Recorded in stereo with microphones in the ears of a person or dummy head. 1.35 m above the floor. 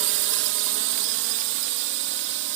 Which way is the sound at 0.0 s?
55° right (ahead or behind).